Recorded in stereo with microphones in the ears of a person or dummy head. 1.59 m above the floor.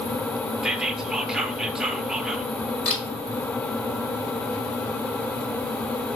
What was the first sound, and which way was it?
Whispering, 5° right (ahead or behind).